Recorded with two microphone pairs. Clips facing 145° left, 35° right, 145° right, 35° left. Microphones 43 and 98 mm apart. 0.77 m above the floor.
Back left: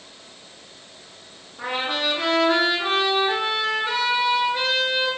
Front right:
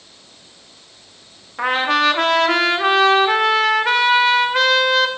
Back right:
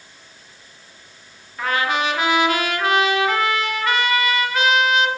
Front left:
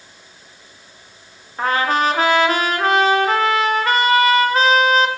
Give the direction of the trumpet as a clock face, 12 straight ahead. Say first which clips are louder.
Front right 9 dB, front left 4 dB; 1 o'clock.